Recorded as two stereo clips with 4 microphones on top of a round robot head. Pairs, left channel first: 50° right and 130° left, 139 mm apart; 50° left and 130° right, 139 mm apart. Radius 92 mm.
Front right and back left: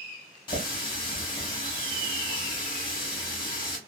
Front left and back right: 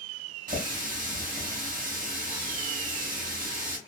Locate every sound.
0.5 s a running tap: 100° right, 0.9 m